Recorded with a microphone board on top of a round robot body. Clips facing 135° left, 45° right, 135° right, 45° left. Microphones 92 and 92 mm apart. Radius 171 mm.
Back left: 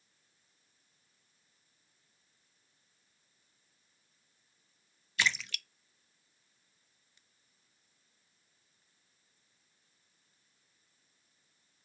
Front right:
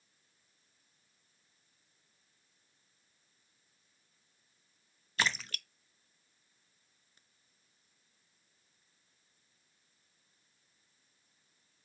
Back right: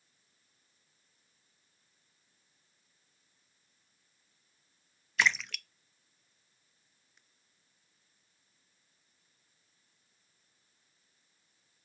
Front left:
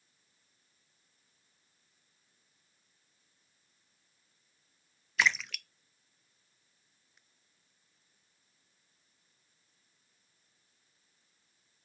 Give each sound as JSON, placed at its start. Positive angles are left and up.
{"t": 5.2, "sound": "a splash", "azimuth_deg": -45, "distance_m": 0.5}